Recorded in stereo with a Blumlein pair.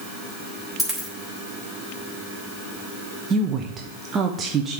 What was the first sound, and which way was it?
A dropped coin, straight ahead.